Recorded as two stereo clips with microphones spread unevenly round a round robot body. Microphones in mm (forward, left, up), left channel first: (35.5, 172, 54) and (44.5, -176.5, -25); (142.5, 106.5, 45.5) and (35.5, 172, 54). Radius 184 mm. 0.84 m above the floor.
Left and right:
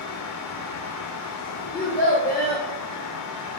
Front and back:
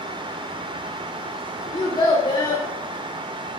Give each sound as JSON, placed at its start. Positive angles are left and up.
{"t": 1.7, "sound": "a child speaking", "azimuth_deg": 25, "distance_m": 1.7}